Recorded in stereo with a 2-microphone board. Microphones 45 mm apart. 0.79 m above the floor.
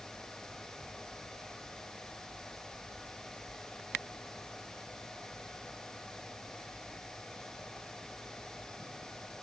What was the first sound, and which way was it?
Only background noise.